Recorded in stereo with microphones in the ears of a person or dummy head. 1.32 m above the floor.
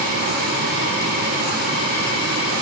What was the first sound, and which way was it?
Only background noise.